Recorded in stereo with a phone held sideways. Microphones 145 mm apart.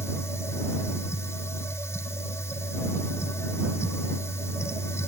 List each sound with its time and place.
0.0 s a machine running: 20° left (ahead or behind)